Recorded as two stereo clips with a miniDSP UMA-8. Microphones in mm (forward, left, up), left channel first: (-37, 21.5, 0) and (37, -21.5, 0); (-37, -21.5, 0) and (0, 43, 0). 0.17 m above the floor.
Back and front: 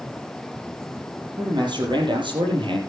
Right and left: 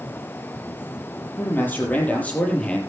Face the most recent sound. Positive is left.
turn(degrees=-45)